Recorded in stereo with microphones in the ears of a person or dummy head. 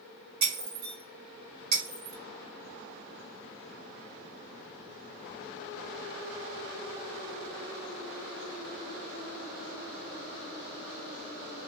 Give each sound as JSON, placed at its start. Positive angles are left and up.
{"t": 0.4, "sound": "breaking glass", "side_deg": -50, "distance_m": 1.6}